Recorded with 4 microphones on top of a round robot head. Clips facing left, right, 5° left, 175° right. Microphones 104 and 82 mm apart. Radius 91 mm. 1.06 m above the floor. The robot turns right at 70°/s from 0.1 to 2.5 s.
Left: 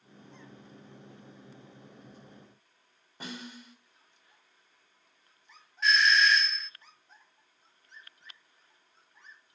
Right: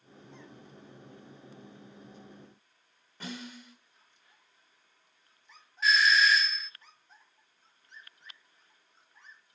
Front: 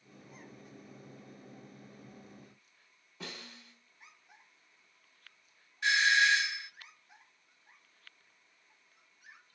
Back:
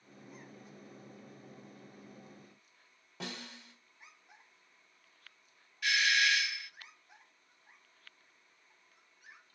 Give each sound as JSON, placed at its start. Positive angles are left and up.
{"t": 3.2, "sound": "a snare drum", "azimuth_deg": 165, "distance_m": 3.0}
{"t": 5.8, "sound": "a doorbell", "azimuth_deg": -5, "distance_m": 0.8}